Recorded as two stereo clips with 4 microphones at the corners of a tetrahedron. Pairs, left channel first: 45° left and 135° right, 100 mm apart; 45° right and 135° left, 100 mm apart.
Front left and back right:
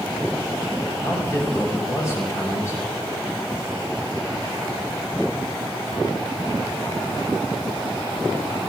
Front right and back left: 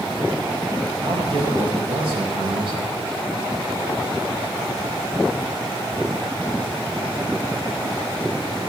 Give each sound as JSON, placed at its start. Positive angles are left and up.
{"t": 1.0, "sound": "a man speaking", "azimuth_deg": 105, "distance_m": 5.5}